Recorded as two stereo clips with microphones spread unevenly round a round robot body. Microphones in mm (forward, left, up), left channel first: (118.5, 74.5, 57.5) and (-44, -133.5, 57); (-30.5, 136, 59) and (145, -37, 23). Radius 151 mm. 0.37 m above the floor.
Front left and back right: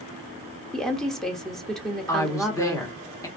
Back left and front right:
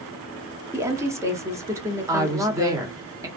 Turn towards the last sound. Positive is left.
turn(degrees=-10)